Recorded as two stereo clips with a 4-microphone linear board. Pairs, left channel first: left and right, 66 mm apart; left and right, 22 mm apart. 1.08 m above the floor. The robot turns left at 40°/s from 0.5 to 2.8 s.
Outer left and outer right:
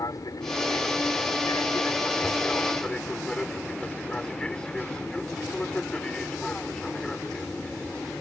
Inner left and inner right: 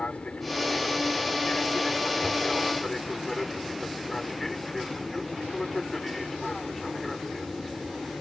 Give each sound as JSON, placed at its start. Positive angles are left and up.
{"t": 0.0, "sound": "an aircraft", "azimuth_deg": 105}